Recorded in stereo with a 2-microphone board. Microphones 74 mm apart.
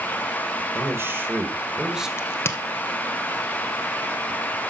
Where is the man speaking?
35° right (ahead or behind), 1.5 m; by 2.1 s 5° right (ahead or behind), 1.6 m.